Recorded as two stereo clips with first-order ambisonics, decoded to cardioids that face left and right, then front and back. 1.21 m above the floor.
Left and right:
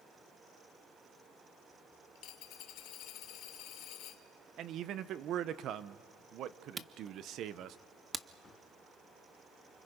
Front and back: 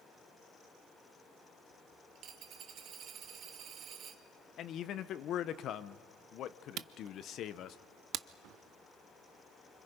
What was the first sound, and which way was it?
A dropped coin, 125° left.